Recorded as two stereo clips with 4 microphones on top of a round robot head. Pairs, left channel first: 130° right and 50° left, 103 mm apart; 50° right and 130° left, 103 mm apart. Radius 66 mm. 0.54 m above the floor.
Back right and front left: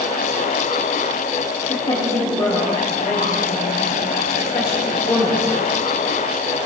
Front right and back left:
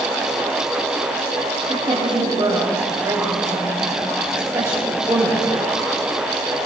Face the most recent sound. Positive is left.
turn(degrees=-175)